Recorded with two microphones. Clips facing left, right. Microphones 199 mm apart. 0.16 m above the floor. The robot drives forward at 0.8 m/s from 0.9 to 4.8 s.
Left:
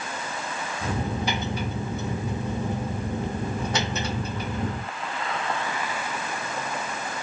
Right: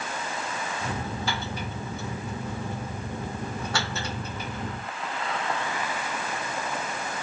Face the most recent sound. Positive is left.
No sound to turn to.